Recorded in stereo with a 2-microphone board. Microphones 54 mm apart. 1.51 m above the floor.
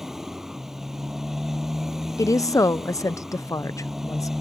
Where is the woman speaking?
90° left.